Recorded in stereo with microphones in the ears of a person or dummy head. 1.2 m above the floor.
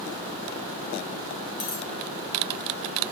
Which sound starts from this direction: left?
A dropped coin, at 1.6 s.